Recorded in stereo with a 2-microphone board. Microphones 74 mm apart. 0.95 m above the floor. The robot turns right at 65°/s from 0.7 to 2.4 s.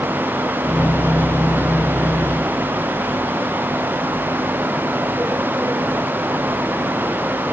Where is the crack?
I don't hear a crack.